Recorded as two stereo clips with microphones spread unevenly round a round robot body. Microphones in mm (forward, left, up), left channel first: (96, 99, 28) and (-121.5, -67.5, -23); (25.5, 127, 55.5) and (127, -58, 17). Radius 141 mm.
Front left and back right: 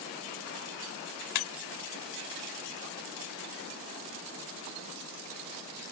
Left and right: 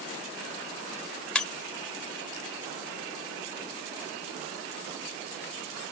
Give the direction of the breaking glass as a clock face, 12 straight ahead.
11 o'clock.